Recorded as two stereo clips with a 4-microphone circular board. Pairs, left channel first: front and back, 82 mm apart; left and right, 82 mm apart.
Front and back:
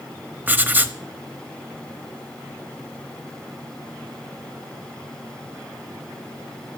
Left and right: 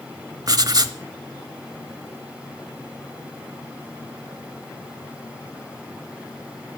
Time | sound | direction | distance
0.5 | writing | 115° right | 0.9 m